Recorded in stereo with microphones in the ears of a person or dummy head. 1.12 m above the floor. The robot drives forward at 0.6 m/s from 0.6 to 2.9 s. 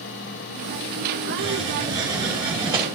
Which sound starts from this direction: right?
A hiss, at 1.4 s.